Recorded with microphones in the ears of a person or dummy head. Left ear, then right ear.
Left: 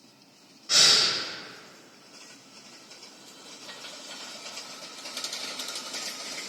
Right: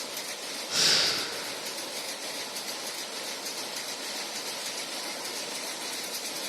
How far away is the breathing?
About 1.0 m.